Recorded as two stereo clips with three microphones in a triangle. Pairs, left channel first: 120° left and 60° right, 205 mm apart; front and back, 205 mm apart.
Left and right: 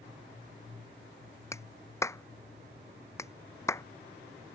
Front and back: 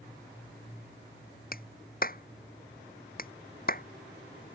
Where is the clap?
45° left.